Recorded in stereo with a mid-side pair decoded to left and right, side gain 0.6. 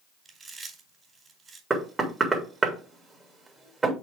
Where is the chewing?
30° right, 4 m.